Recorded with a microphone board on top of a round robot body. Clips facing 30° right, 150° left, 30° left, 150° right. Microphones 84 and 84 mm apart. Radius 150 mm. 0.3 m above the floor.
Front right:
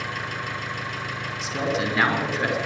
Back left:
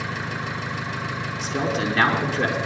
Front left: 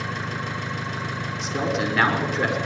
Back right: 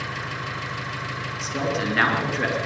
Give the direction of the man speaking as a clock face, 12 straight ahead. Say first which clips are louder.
Back left 1 dB, front left 1 dB; 8 o'clock.